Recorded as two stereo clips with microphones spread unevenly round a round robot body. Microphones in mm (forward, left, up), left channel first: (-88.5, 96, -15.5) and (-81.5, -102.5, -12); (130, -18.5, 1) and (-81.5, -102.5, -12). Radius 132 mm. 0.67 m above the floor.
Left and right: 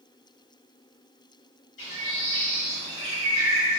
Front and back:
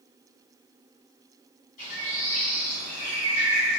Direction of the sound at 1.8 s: 80° left.